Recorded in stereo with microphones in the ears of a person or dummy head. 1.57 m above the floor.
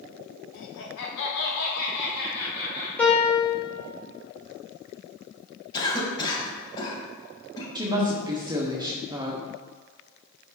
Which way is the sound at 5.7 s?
25° left (ahead or behind).